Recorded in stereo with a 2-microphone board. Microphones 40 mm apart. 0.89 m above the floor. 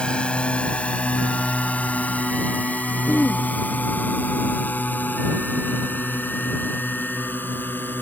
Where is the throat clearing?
65° left (ahead or behind).